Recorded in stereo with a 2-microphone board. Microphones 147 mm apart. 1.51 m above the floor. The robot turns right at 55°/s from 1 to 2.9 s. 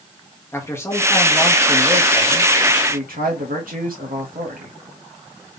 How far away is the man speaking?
About 1.5 m.